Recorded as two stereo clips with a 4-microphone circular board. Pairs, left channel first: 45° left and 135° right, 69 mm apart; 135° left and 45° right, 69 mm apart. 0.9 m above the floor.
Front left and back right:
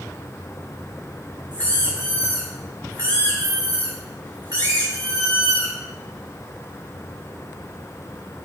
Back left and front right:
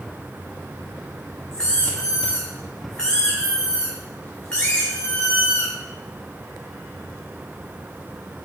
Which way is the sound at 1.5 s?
150° right.